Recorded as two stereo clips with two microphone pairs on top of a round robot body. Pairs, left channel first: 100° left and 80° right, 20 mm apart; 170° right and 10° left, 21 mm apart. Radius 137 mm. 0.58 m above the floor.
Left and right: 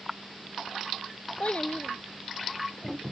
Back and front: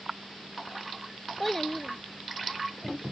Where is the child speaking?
95° left; by 3.0 s 110° left.